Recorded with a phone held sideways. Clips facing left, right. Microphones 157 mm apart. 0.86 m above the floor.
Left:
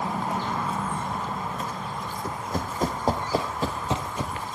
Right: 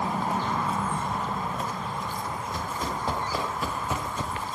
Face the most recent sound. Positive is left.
turn(degrees=10)  # may be behind; listen again after turning